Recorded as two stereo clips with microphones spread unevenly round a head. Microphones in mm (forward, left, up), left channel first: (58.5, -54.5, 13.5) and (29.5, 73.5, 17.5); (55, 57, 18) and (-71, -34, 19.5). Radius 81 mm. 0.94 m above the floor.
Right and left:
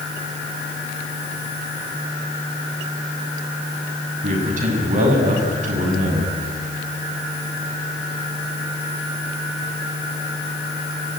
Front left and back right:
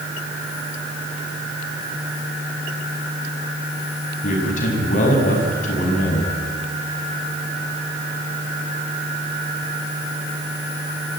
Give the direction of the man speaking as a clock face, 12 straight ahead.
9 o'clock.